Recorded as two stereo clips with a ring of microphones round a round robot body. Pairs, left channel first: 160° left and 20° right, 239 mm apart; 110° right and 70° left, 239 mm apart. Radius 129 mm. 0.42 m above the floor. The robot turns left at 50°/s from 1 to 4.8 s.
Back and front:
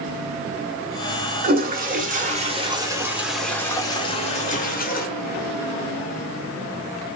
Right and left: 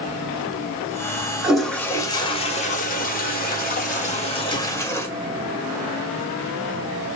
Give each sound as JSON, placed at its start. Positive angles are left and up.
{"t": 1.4, "sound": "a toilet flushing", "azimuth_deg": -15, "distance_m": 1.1}